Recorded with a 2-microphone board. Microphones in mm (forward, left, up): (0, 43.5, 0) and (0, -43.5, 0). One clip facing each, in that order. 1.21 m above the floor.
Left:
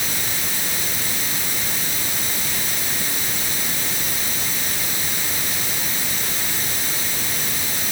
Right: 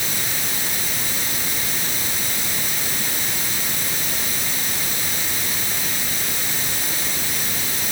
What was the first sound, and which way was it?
Only background noise.